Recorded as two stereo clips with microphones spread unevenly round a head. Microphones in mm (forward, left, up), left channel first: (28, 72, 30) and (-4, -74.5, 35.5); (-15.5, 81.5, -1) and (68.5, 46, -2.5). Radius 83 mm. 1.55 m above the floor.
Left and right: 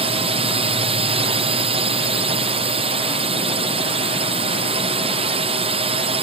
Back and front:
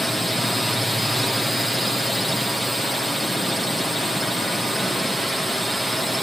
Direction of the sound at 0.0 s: 115° right.